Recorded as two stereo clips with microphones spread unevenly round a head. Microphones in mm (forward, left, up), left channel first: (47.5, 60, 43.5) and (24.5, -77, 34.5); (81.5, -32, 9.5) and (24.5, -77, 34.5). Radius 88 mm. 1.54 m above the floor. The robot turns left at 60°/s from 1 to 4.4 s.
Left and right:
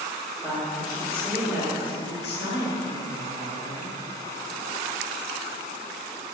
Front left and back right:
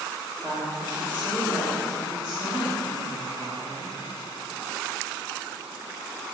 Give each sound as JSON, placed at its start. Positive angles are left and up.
{"t": 0.4, "sound": "a woman speaking", "azimuth_deg": 170, "distance_m": 2.5}